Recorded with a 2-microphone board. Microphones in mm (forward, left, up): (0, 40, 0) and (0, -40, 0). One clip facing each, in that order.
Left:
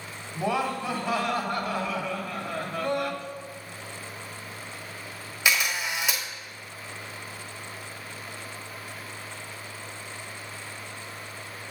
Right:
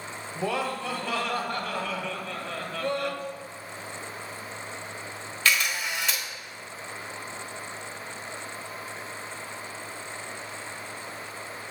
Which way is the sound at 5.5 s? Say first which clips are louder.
Even; 15° left (ahead or behind).